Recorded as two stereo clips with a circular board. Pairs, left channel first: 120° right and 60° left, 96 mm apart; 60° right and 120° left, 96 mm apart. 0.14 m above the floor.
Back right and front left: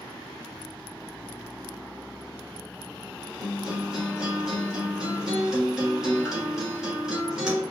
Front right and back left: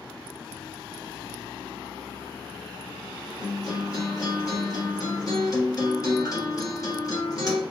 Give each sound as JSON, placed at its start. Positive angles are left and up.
{"t": 3.4, "sound": "a guitar", "azimuth_deg": -25, "distance_m": 1.4}